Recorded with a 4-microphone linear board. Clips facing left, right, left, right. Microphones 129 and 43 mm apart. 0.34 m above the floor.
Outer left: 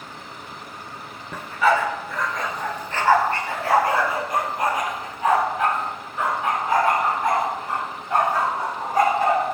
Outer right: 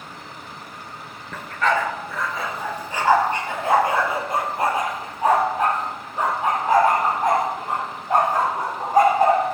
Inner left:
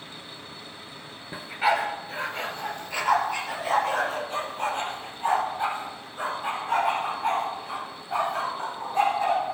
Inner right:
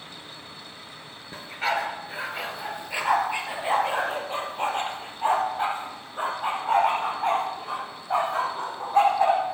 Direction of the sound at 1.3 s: 15° left (ahead or behind).